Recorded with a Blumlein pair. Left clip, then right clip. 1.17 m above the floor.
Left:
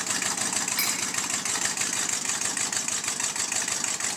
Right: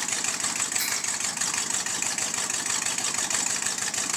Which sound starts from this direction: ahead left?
Cutlery clinking, at 0.8 s.